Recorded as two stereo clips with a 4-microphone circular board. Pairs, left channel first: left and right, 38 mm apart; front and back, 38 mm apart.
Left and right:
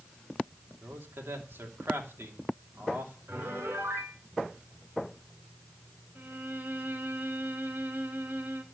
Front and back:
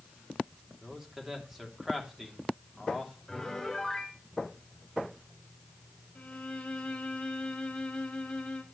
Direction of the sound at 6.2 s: 55° right.